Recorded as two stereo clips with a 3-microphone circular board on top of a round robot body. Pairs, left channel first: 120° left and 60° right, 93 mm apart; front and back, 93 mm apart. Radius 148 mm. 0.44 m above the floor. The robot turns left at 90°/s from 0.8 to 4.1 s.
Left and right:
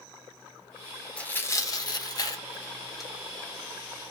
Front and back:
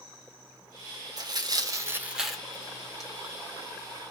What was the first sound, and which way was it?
Tearing paper, 165° right.